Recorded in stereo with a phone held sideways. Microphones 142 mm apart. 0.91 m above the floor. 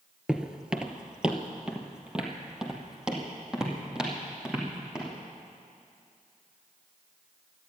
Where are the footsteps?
5° right (ahead or behind), 0.9 m.